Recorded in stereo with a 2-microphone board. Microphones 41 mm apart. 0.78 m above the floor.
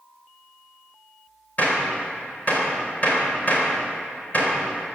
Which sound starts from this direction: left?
A gunshot, at 1.6 s.